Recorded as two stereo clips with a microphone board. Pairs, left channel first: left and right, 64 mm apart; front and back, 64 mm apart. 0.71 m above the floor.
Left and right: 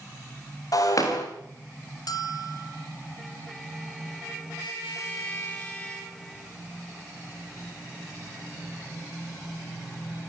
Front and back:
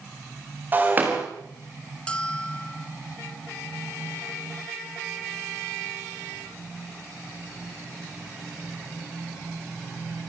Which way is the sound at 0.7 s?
120° left.